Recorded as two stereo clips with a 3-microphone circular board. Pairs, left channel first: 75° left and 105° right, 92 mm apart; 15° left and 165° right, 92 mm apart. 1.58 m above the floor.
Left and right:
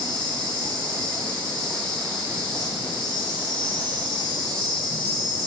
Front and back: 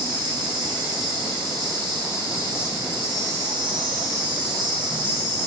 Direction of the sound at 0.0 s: 155° left.